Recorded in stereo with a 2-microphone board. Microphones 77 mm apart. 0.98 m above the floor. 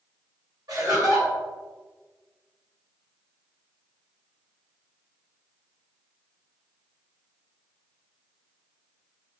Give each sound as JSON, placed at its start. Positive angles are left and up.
{"t": 0.7, "sound": "laughter", "side_deg": -60, "distance_m": 1.6}